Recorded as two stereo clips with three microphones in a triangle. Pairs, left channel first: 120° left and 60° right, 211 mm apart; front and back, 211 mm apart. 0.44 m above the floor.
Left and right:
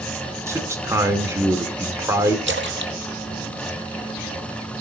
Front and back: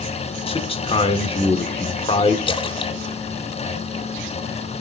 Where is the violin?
I don't hear a violin.